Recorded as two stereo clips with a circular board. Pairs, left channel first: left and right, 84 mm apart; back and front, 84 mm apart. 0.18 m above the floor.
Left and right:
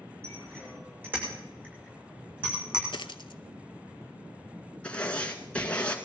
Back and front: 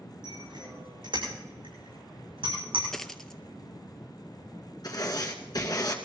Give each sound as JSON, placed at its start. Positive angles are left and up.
{"t": 0.2, "sound": "a bicycle bell", "azimuth_deg": -30, "distance_m": 8.5}
{"t": 2.9, "sound": "a dropped coin", "azimuth_deg": 95, "distance_m": 0.6}
{"t": 4.8, "sound": "writing", "azimuth_deg": 165, "distance_m": 1.8}